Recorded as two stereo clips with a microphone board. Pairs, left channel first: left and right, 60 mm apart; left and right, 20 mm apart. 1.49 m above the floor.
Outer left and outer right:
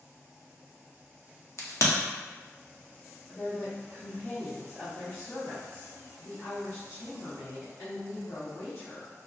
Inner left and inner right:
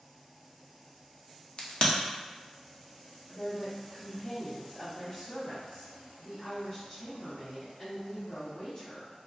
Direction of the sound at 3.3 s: 60° left (ahead or behind).